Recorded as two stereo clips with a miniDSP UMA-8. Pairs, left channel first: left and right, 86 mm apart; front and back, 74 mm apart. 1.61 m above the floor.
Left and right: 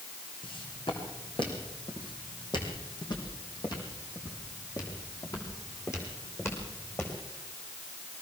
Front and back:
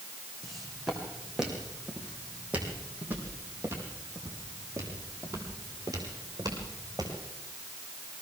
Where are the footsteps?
90° left, 5 m; by 7.1 s 150° left, 6 m.